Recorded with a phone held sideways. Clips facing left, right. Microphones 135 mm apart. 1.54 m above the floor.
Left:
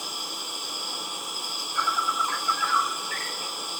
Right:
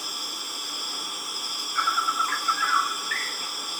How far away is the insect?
About 0.7 m.